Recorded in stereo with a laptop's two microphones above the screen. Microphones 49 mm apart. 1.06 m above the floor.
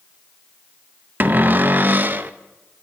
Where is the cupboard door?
40° right (ahead or behind), 0.6 m.